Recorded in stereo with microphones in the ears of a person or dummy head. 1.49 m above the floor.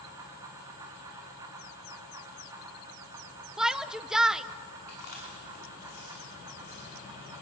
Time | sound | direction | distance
0.0 | a fan | 20° right (ahead or behind) | 3.5 m
3.6 | a shout | centre (ahead or behind) | 0.8 m
4.9 | chewing | 50° left (ahead or behind) | 5 m